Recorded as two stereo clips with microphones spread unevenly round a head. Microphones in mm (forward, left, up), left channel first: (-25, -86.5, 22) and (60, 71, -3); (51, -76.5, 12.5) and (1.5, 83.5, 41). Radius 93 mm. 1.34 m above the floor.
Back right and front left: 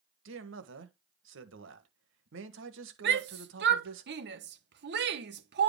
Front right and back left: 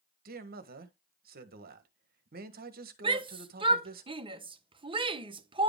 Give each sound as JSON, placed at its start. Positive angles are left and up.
{"t": 0.2, "sound": "a man speaking", "azimuth_deg": 70, "distance_m": 1.5}
{"t": 3.0, "sound": "a shout", "azimuth_deg": 45, "distance_m": 1.3}